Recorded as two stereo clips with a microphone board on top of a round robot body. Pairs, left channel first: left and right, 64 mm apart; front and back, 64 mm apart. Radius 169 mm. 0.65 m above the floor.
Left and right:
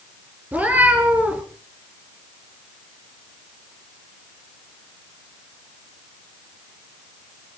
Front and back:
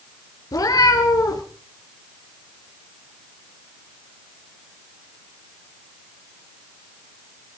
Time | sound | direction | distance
0.5 | a cat meowing | 25° right | 2.5 m